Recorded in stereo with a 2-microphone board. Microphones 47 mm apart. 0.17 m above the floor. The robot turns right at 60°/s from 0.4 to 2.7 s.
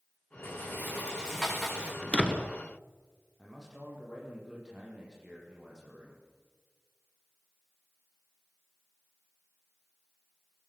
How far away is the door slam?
About 1.8 m.